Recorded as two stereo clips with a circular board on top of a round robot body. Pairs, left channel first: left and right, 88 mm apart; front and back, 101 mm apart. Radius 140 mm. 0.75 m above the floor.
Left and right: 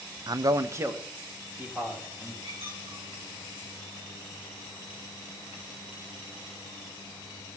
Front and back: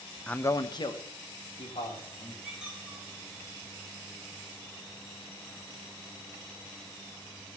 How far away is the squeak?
About 9 m.